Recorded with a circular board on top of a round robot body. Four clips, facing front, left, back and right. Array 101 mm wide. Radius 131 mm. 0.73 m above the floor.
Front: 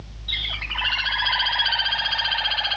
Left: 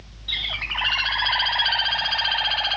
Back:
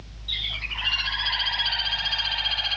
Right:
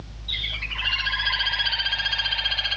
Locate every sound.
0.3 s a bird: 65° left, 1.3 m